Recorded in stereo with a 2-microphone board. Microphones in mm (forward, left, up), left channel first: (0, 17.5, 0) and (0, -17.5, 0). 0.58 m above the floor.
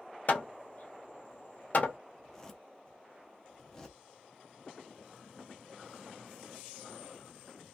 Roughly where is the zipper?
Centre.